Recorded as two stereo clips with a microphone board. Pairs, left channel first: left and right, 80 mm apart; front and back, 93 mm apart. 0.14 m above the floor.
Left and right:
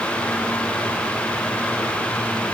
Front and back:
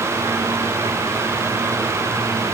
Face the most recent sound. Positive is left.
No sound to turn to.